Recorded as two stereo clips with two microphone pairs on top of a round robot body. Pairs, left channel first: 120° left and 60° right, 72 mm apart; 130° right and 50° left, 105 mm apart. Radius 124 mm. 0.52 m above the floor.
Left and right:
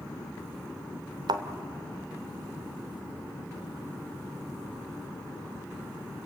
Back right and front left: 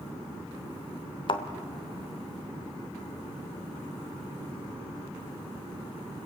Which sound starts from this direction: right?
A thud, at 1.3 s.